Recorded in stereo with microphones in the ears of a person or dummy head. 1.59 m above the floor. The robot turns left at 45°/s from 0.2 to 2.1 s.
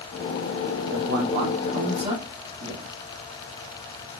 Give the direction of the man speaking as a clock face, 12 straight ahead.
3 o'clock.